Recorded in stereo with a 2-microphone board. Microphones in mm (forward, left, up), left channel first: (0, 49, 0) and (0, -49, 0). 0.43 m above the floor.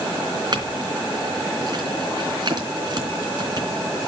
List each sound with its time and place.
0.5 s a clink: 50° right (ahead or behind), 3.5 m